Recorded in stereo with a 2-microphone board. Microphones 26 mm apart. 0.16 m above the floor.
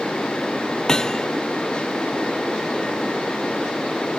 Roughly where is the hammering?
Left.